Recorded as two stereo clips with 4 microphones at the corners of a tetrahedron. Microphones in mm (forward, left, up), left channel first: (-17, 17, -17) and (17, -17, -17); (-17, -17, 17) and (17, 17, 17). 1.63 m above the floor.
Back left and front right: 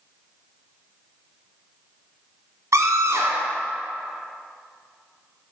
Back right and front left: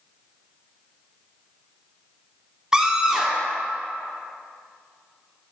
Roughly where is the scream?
Ahead right.